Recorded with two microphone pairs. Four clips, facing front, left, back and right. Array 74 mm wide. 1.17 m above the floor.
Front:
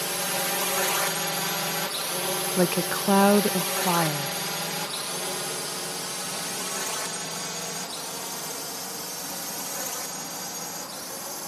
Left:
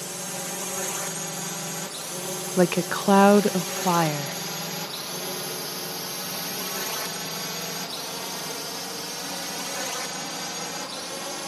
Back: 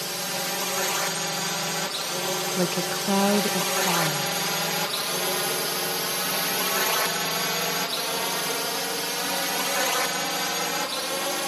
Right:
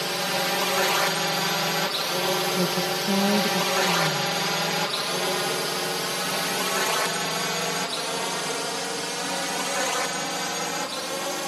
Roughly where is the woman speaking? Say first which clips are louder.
Left 3 dB, front 5 dB; left.